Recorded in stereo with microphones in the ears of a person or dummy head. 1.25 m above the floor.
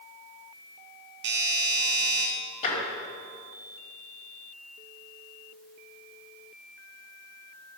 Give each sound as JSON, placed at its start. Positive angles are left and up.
{"t": 1.2, "sound": "a doorbell", "side_deg": -55, "distance_m": 1.9}
{"t": 2.6, "sound": "tapping", "side_deg": 40, "distance_m": 5.0}